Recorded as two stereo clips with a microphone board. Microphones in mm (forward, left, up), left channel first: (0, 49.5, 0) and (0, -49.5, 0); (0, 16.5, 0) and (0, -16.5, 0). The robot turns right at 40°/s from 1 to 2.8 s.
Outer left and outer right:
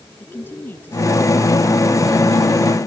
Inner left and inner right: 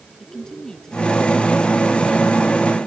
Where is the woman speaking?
160° left; by 2.8 s 130° right.